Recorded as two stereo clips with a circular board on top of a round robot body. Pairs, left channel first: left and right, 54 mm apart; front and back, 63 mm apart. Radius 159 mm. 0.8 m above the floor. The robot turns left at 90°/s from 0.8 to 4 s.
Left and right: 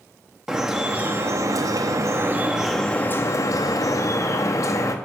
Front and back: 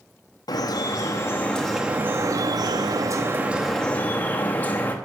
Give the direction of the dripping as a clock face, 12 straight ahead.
12 o'clock.